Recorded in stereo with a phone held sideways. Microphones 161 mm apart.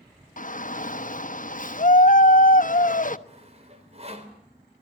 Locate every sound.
0.4 s a shout: 50° left (ahead or behind), 1.0 m
3.3 s sawing: 40° right (ahead or behind), 3.5 m